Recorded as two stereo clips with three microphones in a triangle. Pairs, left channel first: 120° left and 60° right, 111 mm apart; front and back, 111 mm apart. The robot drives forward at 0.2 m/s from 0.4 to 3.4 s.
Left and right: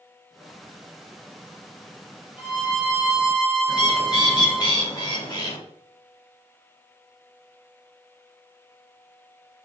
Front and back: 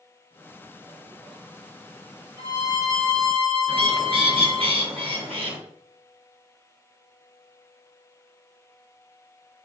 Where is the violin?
135° right, 1.3 m; by 4.7 s 140° right, 1.4 m.